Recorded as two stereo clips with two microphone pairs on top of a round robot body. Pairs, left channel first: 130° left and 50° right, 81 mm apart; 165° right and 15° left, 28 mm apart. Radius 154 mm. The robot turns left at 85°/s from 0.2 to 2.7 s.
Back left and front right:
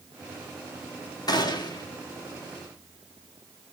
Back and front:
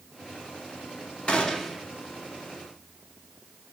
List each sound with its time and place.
1.3 s a gunshot: 145° left, 1.5 m; by 1.9 s 95° left, 1.5 m